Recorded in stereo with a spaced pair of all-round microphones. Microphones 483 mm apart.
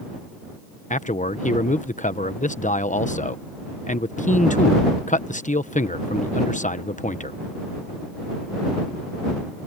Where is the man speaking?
15° left (ahead or behind).